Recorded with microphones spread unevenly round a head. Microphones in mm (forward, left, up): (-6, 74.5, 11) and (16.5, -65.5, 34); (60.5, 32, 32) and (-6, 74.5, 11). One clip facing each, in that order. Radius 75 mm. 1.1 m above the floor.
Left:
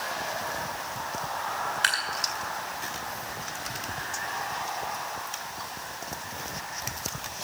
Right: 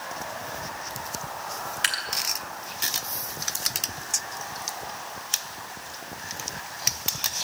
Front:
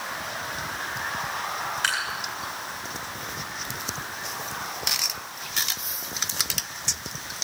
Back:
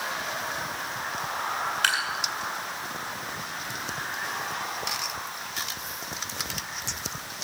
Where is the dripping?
145° right, 1.8 m.